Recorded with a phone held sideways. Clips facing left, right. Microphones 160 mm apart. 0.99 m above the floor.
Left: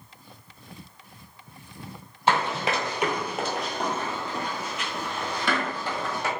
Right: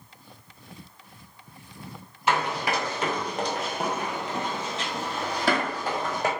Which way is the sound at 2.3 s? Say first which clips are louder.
Left 1 dB; 30° left (ahead or behind).